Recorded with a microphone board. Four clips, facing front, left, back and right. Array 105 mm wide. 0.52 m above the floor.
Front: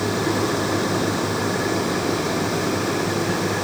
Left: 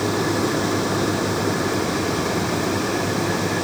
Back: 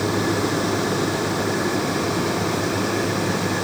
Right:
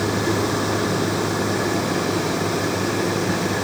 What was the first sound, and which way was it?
Only background noise.